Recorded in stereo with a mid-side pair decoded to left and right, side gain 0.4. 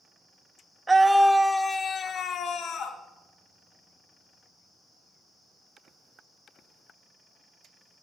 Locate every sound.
0.9 s a scream: 25° right, 0.6 m; by 3.0 s 80° left, 1.1 m